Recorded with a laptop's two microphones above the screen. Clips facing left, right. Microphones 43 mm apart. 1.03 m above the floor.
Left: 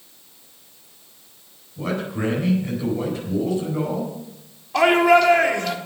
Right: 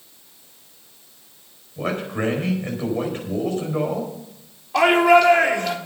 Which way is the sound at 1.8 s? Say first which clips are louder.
Right 1 dB; 50° right (ahead or behind).